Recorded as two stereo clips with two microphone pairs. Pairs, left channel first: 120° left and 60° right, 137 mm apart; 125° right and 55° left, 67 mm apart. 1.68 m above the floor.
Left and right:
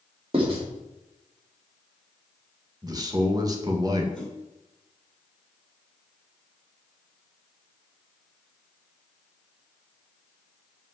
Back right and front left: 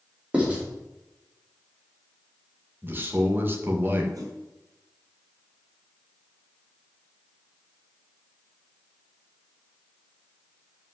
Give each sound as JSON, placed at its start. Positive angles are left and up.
{"t": 0.3, "sound": "writing", "azimuth_deg": -20, "distance_m": 4.0}
{"t": 2.8, "sound": "a man speaking", "azimuth_deg": 0, "distance_m": 1.9}
{"t": 4.1, "sound": "a whoosh", "azimuth_deg": 30, "distance_m": 4.0}